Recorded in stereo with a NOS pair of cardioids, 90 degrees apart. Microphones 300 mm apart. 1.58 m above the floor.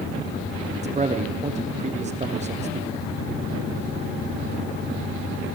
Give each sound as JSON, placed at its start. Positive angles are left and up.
{"t": 0.8, "sound": "a man speaking", "azimuth_deg": -20, "distance_m": 1.0}